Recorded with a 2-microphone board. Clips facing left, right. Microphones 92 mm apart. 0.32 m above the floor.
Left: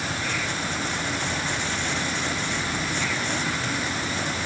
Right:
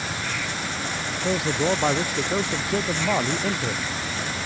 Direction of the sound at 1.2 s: 75° right (ahead or behind).